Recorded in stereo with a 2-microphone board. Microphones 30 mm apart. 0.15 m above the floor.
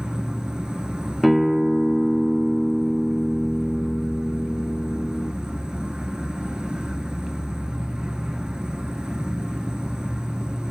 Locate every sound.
0.0 s an insect: 30° right (ahead or behind), 0.8 m
1.2 s a guitar: centre (ahead or behind), 1.9 m